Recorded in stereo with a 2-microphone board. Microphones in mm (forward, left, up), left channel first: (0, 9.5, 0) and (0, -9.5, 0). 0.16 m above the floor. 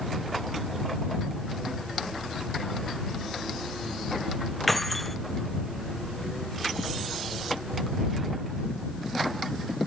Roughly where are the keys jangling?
Centre.